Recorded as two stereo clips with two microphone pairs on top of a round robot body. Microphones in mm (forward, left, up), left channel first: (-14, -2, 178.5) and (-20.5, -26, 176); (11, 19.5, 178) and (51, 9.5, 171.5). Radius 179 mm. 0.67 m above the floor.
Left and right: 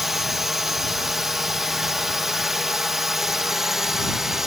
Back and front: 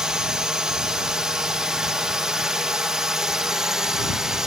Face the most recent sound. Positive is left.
turn(degrees=-55)